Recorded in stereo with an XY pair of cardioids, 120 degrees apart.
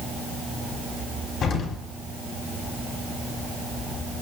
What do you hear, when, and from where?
1.4 s an explosion: 65° left, 4.5 m